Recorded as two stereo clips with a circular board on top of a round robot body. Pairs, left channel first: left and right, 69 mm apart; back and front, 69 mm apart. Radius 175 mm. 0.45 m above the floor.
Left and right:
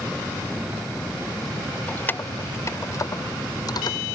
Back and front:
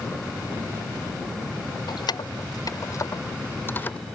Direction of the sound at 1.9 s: 160° left.